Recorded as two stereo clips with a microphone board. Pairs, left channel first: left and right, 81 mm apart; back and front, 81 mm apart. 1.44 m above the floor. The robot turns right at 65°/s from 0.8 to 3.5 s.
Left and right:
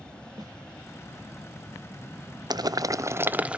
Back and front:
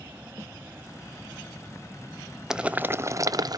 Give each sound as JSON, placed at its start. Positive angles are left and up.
{"t": 0.4, "sound": "a snare drum", "azimuth_deg": -50, "distance_m": 1.5}
{"t": 2.5, "sound": "boiling", "azimuth_deg": -80, "distance_m": 0.6}